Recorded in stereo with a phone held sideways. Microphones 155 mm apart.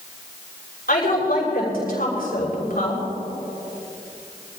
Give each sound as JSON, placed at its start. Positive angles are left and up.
{"t": 0.9, "sound": "a woman speaking", "side_deg": 70, "distance_m": 6.5}